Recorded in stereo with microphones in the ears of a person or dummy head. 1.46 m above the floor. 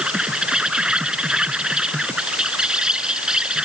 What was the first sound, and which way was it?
An insect, 5° right (ahead or behind).